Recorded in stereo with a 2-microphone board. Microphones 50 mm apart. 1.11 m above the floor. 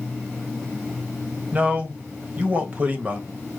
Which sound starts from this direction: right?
A man speaking, at 1.5 s.